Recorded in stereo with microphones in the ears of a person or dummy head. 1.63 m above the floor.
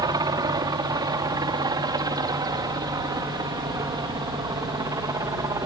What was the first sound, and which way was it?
A helicopter, 25° right (ahead or behind).